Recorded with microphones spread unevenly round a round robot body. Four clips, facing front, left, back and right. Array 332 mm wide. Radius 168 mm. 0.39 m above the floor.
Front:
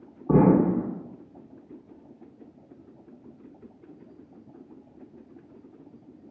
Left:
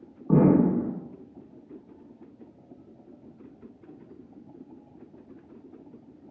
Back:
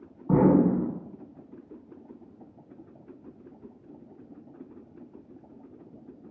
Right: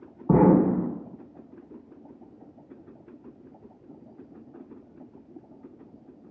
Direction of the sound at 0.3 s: 75° right.